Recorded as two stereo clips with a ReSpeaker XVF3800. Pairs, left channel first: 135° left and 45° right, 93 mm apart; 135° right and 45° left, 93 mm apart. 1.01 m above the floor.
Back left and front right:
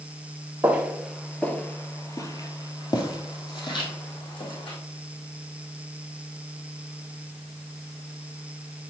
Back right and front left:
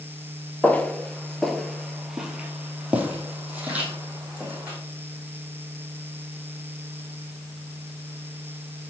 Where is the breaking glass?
I don't hear breaking glass.